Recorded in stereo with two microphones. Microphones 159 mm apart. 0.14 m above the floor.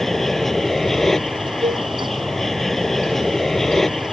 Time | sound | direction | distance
0.0 | an aircraft | centre (ahead or behind) | ?
1.6 | a cowbell | 45° right (ahead or behind) | ?